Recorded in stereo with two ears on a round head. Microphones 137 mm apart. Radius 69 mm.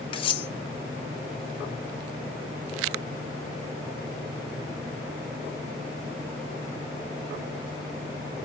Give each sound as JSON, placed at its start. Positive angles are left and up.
{"t": 0.1, "sound": "cutlery clinking", "side_deg": 35, "distance_m": 0.5}